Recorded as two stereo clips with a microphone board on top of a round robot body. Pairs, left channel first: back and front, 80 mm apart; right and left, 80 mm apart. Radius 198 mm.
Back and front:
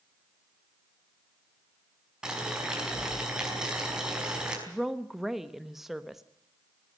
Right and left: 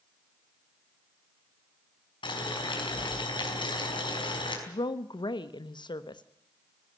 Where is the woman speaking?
85° right, 1.2 m.